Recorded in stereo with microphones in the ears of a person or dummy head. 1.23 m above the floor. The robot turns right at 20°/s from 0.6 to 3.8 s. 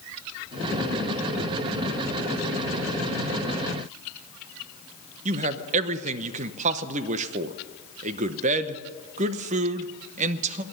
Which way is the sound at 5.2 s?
45° right (ahead or behind).